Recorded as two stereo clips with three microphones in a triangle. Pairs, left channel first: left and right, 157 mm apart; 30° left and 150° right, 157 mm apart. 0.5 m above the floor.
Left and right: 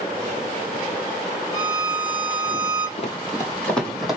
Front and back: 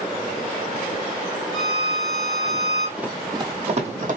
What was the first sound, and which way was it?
A violin, 15° right.